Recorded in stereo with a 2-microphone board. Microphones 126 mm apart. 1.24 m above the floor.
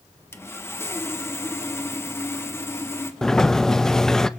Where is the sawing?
20° left (ahead or behind), 1.0 m.